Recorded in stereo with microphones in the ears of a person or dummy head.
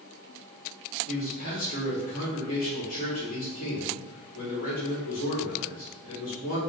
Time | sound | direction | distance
1.1 | a man speaking | 45° left (ahead or behind) | 1.8 m